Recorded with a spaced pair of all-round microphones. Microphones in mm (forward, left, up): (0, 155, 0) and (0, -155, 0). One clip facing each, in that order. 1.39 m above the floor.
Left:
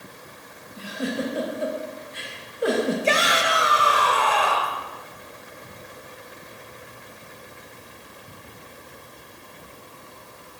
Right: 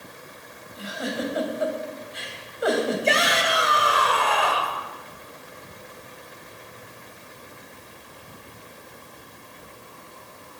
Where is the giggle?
35° left (ahead or behind), 4.5 m.